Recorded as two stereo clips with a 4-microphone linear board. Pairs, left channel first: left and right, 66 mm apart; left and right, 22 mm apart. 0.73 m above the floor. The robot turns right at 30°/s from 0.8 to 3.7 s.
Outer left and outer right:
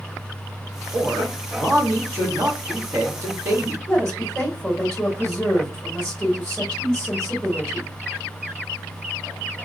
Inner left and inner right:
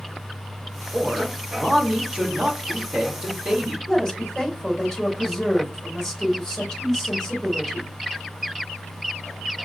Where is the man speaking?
135° right, 1.4 m; by 3.8 s 55° right, 1.4 m.